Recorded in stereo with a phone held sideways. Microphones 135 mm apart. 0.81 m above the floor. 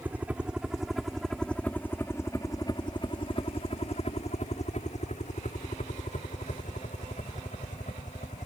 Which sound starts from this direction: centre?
A helicopter, at 0.0 s.